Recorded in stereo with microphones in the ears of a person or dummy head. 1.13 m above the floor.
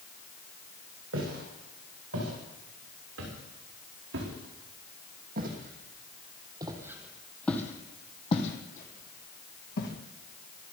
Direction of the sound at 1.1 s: 75° right (ahead or behind).